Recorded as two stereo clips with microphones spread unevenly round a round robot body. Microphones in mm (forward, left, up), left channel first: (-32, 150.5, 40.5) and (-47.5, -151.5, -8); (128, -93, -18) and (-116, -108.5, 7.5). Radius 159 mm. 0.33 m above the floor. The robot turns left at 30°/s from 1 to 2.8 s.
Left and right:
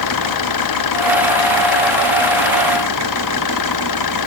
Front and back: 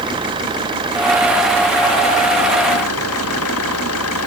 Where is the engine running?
105° left; by 4.3 s 55° left.